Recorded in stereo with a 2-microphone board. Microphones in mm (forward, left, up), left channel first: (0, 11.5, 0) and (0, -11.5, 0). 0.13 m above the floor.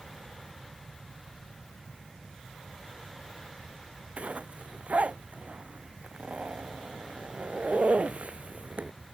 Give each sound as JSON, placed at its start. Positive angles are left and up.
{"t": 4.2, "sound": "a zipper", "side_deg": -70}